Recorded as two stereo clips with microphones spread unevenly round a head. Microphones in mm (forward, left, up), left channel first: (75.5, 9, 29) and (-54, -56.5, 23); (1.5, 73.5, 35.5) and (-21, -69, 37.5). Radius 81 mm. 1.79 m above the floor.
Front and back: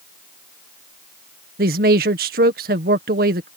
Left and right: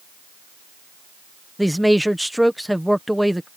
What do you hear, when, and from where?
1.6 s a man speaking: 170° left